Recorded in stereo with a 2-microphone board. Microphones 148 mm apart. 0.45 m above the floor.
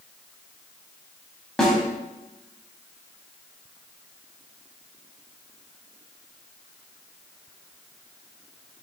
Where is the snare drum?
5° left (ahead or behind), 1.1 m.